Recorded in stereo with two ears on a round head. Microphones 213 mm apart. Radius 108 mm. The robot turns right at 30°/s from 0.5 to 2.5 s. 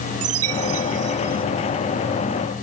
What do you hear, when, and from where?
0.2 s a chime: 65° right (ahead or behind); by 1.4 s 35° right (ahead or behind)